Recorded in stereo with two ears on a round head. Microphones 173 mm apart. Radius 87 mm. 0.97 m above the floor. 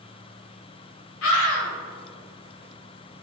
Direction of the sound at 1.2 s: 75° left (ahead or behind).